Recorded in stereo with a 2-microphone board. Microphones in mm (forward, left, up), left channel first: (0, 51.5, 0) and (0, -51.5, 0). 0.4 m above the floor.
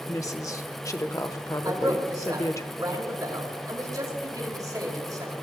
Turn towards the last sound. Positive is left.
turn(degrees=-35)  # may be behind; listen again after turning